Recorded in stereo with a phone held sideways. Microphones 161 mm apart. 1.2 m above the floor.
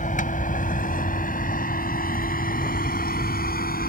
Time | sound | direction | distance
0.0 | a vehicle | 55° left (ahead or behind) | ?